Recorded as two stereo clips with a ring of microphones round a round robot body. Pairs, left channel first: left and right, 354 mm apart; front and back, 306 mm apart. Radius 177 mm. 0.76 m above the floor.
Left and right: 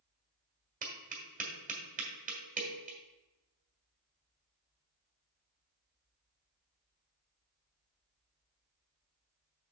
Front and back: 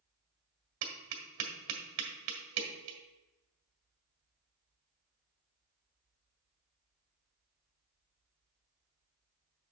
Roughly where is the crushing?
I don't hear crushing.